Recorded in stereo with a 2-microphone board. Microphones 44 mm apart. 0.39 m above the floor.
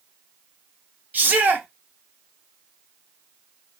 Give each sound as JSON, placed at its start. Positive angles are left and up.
{"t": 1.1, "sound": "a shout", "side_deg": -45, "distance_m": 1.1}